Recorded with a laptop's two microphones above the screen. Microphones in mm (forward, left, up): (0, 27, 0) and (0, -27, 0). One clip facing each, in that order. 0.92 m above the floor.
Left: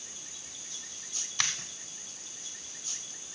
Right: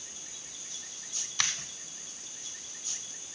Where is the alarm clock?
No alarm clock in this recording.